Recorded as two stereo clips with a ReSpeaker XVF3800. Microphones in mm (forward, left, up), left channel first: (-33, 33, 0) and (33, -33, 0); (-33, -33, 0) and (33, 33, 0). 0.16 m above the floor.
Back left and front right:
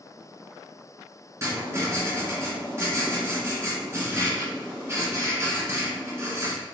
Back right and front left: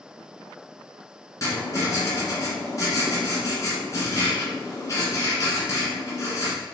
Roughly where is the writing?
Right.